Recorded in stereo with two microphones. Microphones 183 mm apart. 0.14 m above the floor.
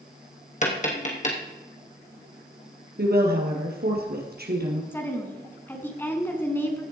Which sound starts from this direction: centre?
A woman speaking, at 4.9 s.